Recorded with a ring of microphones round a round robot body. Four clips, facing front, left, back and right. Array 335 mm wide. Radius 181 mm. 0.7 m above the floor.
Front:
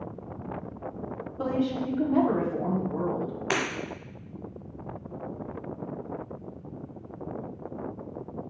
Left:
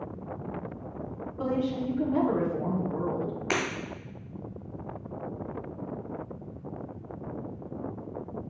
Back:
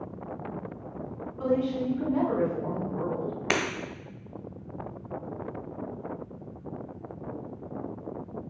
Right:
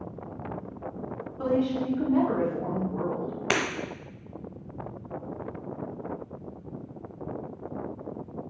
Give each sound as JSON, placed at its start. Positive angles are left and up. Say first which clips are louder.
{"t": 1.4, "sound": "a woman speaking", "louder": "right 3 dB, back 1 dB", "azimuth_deg": 20, "distance_m": 2.5}
{"t": 3.5, "sound": "breaking glass", "louder": "right 3 dB, back 1 dB", "azimuth_deg": -145, "distance_m": 1.4}